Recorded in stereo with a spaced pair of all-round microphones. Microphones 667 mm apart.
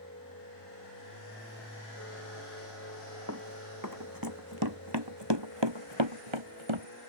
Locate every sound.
0.0 s a machine running: 20° left (ahead or behind)
3.3 s running footsteps: 25° right (ahead or behind); by 6.9 s 45° right (ahead or behind)